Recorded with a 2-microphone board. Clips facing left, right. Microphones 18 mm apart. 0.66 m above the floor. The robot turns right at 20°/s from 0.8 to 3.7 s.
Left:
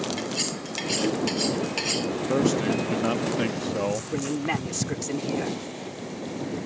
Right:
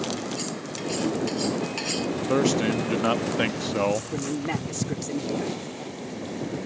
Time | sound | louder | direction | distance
0.2 | cutlery clinking | left 2 dB | 35° left (ahead or behind) | ?
2.3 | a man speaking | right 1 dB | 15° right (ahead or behind) | ?
4.1 | a man speaking | left 1 dB | 20° left (ahead or behind) | ?